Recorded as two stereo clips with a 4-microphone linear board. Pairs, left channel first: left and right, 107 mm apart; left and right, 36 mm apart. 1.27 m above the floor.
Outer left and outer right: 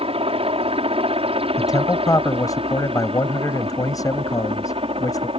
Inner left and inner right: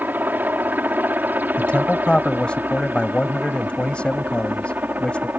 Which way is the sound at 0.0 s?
65° right (ahead or behind).